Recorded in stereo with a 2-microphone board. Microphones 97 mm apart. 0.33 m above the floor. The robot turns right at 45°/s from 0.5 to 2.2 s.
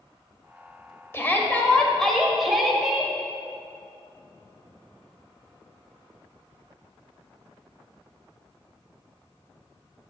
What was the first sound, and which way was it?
A shout, 135° left.